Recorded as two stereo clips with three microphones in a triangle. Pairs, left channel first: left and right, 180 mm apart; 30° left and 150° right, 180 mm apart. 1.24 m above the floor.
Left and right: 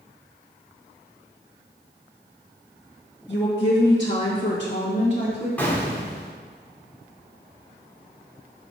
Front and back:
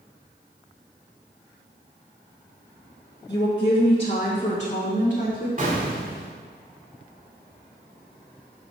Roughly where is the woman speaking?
Left.